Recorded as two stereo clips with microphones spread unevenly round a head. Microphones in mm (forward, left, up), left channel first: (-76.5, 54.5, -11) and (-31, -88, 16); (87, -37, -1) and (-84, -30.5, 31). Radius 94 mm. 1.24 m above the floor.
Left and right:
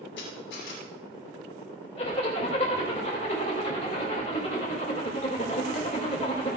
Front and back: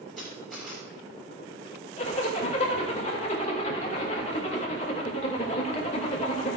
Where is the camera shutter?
90° left, 6 m.